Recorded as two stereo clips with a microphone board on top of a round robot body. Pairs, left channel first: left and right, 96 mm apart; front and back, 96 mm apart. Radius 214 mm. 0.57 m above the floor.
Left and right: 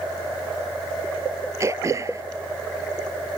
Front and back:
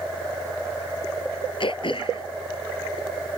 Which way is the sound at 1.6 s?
35° right.